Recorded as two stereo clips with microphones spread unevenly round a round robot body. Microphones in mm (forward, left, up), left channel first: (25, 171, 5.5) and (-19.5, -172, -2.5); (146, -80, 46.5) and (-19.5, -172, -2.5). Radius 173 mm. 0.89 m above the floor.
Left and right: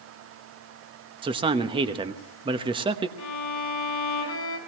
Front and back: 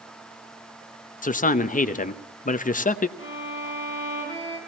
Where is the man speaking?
25° right, 1.0 m.